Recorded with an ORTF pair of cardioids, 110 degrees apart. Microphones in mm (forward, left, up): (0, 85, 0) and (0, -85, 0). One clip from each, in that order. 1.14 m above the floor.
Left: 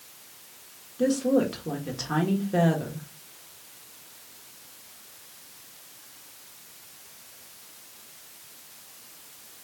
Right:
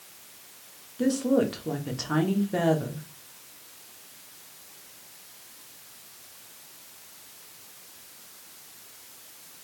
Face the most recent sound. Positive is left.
turn(degrees=-5)